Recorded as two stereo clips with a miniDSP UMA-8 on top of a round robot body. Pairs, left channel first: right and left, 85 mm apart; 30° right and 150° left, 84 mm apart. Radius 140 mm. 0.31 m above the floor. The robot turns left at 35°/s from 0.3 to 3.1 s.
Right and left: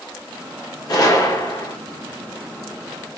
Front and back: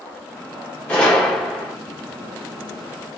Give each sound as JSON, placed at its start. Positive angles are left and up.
{"t": 0.9, "sound": "a gunshot", "azimuth_deg": -100, "distance_m": 1.7}